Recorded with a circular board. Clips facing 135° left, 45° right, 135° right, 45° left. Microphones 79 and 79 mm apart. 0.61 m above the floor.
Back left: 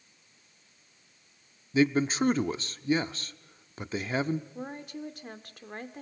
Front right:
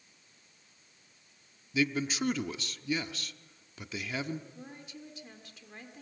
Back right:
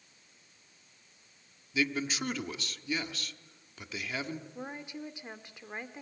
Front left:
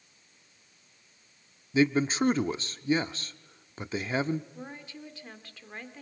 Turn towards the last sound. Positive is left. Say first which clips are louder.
# back left 9 dB, back right 2 dB
turn(degrees=155)